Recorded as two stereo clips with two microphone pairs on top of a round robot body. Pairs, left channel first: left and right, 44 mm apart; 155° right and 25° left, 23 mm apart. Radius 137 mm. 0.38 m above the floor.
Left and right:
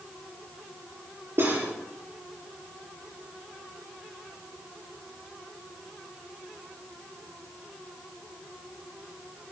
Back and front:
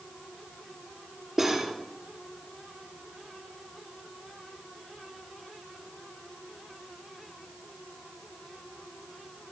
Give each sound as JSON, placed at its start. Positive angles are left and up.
{"t": 1.4, "sound": "cutlery clinking", "azimuth_deg": -50, "distance_m": 6.0}